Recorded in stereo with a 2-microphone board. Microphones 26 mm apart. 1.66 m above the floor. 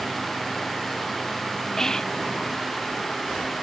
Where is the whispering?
20° left (ahead or behind), 0.8 m.